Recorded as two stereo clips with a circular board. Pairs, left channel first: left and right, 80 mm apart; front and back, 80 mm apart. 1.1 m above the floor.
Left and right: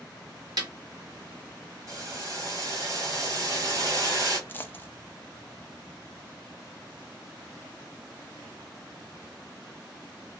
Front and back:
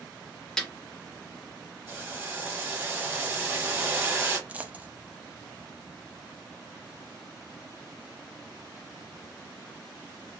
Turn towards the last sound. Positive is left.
turn(degrees=130)